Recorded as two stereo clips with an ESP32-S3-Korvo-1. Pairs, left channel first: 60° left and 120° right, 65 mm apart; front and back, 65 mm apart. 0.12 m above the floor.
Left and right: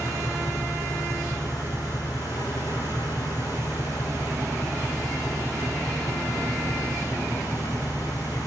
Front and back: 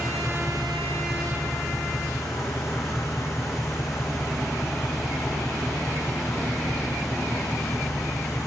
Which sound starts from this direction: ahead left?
An engine running, at 0.0 s.